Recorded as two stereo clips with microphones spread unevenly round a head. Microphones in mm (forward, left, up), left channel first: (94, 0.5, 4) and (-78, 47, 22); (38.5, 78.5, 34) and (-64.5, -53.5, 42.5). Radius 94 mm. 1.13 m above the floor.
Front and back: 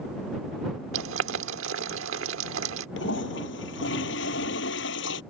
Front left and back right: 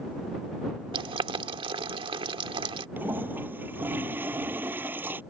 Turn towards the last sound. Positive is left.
turn(degrees=-50)